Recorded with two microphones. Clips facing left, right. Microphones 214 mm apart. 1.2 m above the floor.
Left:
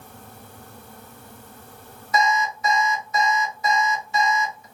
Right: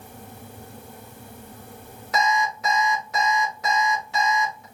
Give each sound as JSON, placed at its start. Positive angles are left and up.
{"t": 2.1, "sound": "an alarm clock", "side_deg": -70, "distance_m": 1.7}